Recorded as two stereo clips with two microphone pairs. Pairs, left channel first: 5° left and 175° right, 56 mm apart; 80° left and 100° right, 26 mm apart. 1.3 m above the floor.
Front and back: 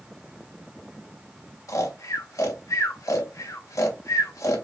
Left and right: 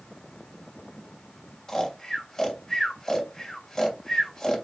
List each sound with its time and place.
1.7 s snoring: 10° left, 2.5 m